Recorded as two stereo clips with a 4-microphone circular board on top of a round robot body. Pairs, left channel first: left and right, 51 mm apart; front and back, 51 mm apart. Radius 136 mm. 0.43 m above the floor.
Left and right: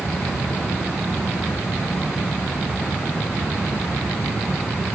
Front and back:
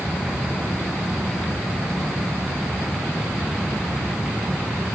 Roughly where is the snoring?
I don't hear snoring.